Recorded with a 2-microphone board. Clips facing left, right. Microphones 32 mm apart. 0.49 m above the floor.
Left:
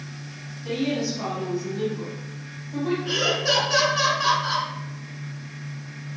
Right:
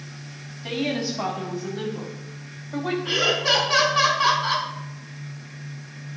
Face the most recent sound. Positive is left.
turn(degrees=-50)  # may be behind; listen again after turning